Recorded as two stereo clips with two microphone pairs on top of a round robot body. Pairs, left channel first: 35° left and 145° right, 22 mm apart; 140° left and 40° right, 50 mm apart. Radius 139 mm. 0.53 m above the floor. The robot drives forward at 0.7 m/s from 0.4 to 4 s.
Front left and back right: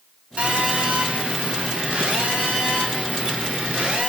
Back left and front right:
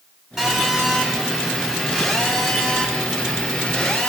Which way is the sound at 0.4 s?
125° right.